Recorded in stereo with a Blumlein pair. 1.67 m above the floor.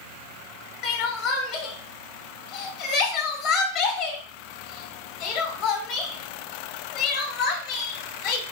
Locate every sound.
0.8 s crying: 35° left, 0.8 m